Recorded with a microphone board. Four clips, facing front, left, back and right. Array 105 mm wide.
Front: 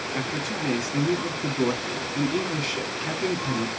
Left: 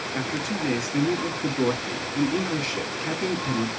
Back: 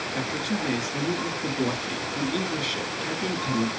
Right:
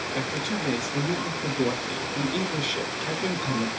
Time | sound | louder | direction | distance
0.1 | a man speaking | left 2 dB, back 2 dB | 55° left | 1.1 m